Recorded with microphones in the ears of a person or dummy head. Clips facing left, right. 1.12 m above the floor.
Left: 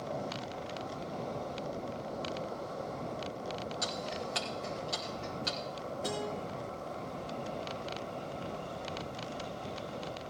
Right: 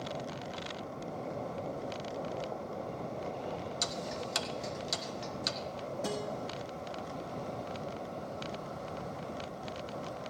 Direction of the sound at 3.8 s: 55° right (ahead or behind).